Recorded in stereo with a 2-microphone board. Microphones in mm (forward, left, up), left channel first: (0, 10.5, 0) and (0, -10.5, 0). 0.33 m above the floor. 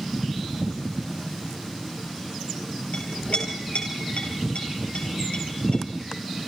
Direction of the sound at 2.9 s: 75° left (ahead or behind).